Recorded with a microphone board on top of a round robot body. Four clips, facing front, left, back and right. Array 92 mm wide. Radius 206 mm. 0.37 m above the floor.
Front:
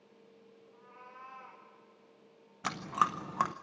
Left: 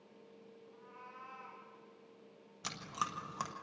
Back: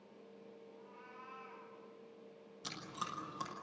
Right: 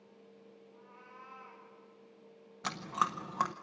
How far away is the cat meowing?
About 7.5 m.